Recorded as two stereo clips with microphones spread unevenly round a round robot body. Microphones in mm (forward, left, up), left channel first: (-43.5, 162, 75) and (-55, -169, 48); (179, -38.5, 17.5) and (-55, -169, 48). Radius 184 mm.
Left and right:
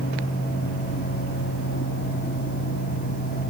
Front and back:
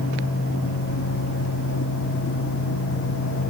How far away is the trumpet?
I don't hear a trumpet.